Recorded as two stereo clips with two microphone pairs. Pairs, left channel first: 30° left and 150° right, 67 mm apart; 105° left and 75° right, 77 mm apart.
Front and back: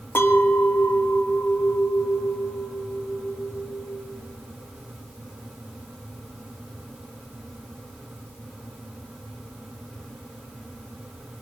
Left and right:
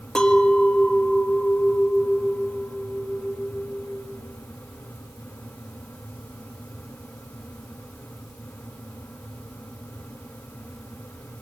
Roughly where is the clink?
Ahead left.